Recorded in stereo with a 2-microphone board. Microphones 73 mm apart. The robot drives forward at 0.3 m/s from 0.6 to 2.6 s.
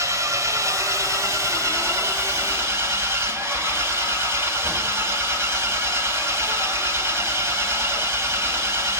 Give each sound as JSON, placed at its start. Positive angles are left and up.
{"t": 0.0, "sound": "an engine running", "side_deg": -45, "distance_m": 2.0}